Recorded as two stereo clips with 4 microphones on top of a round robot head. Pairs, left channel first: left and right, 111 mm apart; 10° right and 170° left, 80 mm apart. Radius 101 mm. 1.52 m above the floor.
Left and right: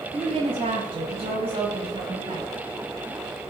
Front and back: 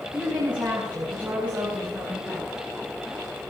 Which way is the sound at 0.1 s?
115° right.